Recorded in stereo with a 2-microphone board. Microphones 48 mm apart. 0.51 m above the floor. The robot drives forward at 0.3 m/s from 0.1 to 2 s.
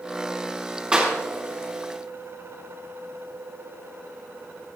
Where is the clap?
20° right (ahead or behind), 5 m.